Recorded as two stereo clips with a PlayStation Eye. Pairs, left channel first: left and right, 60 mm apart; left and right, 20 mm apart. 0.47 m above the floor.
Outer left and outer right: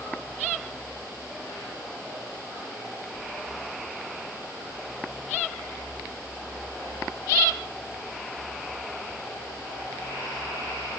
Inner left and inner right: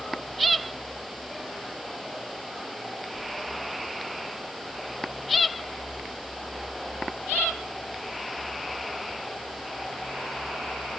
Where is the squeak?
No squeak in this recording.